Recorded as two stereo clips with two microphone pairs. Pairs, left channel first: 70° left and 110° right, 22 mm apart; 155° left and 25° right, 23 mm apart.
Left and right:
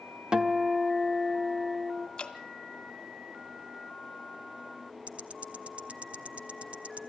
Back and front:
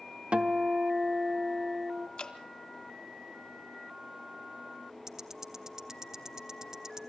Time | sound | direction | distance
0.3 | a guitar | 55° right | 1.0 m
2.2 | dripping | 120° left | 1.5 m
5.1 | ticking | 90° right | 0.8 m